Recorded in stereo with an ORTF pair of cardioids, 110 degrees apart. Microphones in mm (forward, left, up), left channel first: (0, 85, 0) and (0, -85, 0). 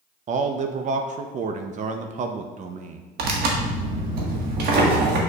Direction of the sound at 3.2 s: 70° right.